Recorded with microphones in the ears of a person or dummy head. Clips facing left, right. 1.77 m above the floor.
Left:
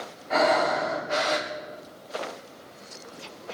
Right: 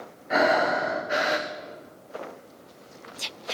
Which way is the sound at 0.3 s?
15° right (ahead or behind).